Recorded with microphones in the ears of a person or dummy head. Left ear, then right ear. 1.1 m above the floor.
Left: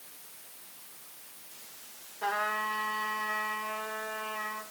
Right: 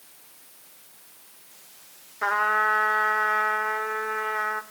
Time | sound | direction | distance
2.2 | a trumpet | 50° right (ahead or behind) | 1.7 m